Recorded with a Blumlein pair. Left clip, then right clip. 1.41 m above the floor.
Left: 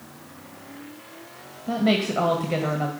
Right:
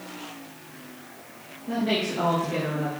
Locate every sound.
1.7 s a woman speaking: 70° left, 1.8 m